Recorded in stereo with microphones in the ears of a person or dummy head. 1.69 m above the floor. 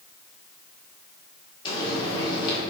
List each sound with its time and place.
1.6 s frying: 30° left (ahead or behind), 3.5 m